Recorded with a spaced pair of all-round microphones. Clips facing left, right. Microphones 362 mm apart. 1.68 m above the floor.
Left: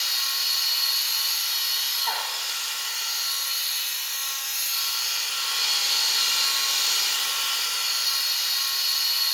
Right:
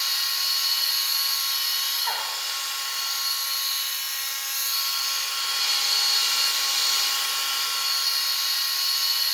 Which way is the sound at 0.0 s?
45° left (ahead or behind).